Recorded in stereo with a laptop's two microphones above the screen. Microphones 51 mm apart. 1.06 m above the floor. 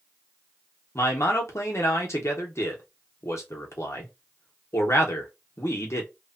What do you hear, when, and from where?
0.9 s a man speaking: 65° left (ahead or behind), 0.8 m